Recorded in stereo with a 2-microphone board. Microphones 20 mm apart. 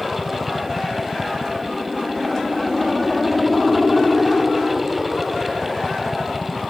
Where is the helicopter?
10° left (ahead or behind).